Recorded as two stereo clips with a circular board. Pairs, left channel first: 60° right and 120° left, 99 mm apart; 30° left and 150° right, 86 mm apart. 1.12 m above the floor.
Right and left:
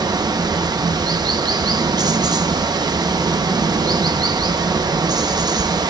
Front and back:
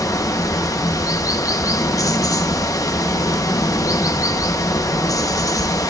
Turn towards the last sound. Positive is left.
turn(degrees=75)